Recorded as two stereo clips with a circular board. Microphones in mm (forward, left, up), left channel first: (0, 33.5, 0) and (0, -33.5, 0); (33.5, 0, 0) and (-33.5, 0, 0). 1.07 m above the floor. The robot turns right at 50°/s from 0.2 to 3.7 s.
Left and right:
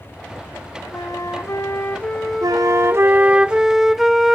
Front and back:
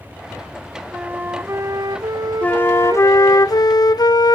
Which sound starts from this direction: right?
A flute, at 2.4 s.